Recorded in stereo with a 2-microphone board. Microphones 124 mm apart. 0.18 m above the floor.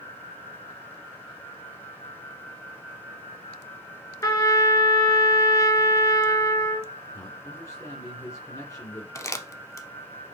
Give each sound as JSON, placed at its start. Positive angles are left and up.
{"t": 4.2, "sound": "a trumpet", "side_deg": 25, "distance_m": 1.3}
{"t": 7.1, "sound": "a man speaking", "side_deg": 30, "distance_m": 2.0}
{"t": 9.2, "sound": "crumpling", "side_deg": 25, "distance_m": 0.7}